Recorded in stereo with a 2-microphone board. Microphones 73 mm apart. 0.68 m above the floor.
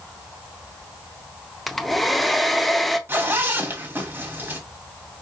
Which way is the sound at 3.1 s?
35° right (ahead or behind).